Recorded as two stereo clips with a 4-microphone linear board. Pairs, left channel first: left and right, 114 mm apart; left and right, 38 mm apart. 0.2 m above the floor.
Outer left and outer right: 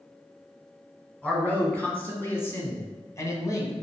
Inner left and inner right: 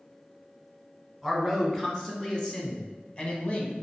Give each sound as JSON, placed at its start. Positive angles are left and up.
{"t": 1.2, "sound": "a man speaking", "side_deg": 10, "distance_m": 2.5}